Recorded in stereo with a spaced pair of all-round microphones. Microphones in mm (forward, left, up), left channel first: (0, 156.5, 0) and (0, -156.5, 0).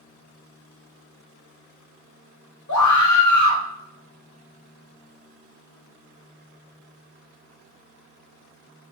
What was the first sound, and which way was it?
A scream, 65° left (ahead or behind).